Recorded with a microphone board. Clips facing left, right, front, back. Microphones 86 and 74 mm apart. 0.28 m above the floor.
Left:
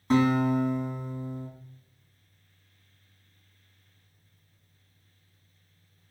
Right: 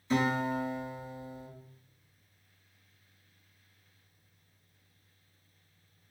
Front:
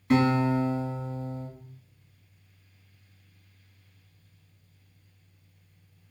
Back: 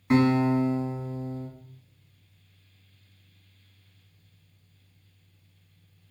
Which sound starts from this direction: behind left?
A guitar, at 0.1 s.